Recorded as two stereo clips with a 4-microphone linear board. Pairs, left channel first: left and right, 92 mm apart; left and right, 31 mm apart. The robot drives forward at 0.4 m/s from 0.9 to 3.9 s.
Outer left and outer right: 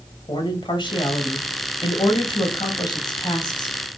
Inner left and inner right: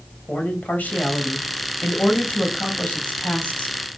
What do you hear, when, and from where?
0.3 s a man speaking: 60° left (ahead or behind), 2.5 m; by 3.8 s 50° left (ahead or behind), 3 m